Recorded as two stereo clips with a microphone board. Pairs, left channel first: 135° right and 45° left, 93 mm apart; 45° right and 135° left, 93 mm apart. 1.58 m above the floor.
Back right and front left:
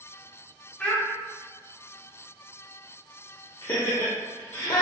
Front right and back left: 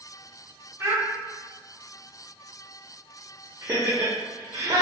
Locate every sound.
0.8 s a child speaking: 160° left, 0.6 m
3.6 s laughter: 170° right, 0.6 m